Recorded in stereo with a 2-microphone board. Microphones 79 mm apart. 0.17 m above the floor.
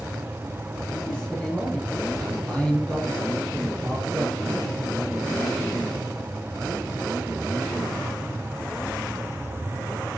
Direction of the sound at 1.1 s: 10° left (ahead or behind).